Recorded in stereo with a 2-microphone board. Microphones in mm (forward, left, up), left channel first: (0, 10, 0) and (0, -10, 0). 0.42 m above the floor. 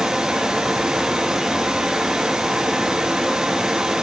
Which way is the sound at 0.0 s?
40° right (ahead or behind).